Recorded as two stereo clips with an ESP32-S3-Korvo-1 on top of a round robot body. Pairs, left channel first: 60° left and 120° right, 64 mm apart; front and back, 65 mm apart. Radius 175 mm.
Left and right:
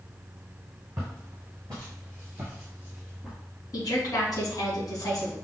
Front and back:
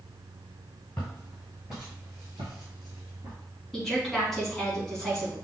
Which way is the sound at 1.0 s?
75° right.